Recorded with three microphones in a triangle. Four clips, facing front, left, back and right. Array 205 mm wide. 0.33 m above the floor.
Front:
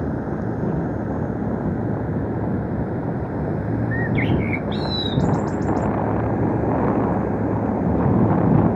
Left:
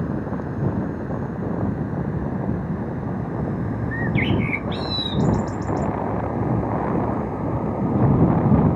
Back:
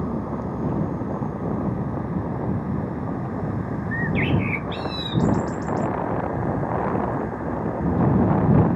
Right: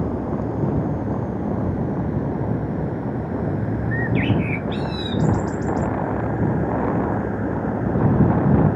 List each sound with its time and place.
0.0 s a vehicle: 50° right; by 8.8 s 10° right
3.9 s a bird: 60° left